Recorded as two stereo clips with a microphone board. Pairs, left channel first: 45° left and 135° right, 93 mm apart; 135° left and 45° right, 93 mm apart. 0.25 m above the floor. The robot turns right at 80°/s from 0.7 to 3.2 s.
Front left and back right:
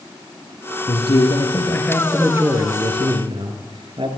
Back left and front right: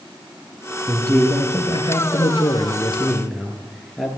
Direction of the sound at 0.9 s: 40° left.